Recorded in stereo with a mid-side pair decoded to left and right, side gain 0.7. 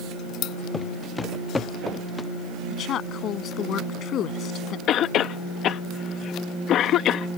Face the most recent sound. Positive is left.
turn(degrees=50)